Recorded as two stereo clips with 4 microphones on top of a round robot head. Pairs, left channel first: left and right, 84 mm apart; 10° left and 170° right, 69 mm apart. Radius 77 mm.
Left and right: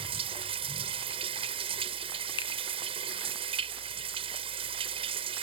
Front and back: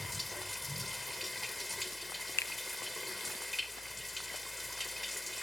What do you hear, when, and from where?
0.0 s running water: 80° right
2.4 s a finger snap: 65° left